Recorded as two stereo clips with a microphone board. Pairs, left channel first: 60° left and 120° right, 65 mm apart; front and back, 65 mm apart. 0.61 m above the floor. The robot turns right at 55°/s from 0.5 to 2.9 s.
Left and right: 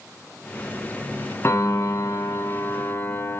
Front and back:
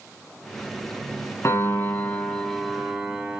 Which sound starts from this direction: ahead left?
A piano, at 1.4 s.